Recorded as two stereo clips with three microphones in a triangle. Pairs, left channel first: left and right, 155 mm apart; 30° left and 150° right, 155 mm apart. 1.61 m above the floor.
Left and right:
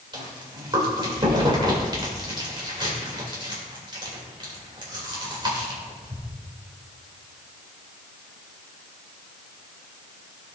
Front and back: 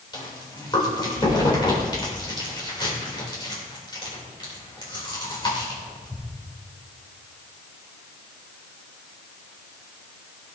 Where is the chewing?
30° right, 3 m.